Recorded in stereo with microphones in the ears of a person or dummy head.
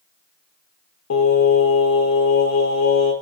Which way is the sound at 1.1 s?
70° left (ahead or behind).